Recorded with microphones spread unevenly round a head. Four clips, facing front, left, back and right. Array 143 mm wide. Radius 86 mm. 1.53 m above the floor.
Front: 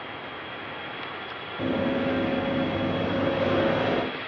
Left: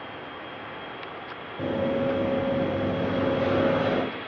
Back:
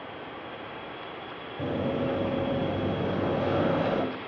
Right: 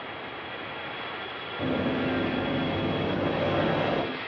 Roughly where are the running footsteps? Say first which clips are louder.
Left 2 dB, front 3 dB; behind right.